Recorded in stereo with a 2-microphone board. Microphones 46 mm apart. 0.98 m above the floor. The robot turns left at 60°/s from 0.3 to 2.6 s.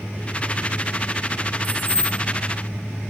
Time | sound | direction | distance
1.6 | keys jangling | 150° left | 1.5 m